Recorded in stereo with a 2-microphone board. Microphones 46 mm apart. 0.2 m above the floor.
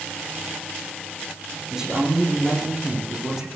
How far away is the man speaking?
About 9.5 m.